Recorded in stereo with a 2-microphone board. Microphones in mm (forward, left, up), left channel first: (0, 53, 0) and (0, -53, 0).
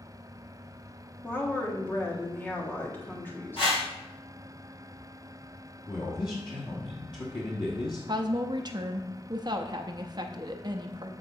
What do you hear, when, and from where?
1.2 s a woman speaking: 20° left (ahead or behind), 1.4 m
3.6 s a whoosh: 60° left (ahead or behind), 2 m
5.9 s a man speaking: 45° left (ahead or behind), 1.2 m
8.1 s a woman speaking: 40° right (ahead or behind), 0.6 m